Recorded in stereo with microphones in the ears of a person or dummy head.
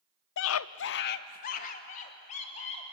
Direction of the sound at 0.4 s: 70° left (ahead or behind).